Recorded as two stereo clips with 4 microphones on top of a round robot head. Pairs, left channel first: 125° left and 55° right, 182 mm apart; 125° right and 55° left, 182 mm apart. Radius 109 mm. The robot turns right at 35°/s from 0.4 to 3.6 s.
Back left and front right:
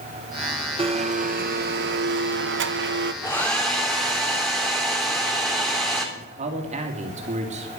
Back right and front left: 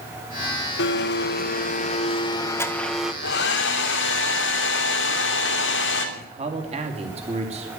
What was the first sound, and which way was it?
A blender, 115° right.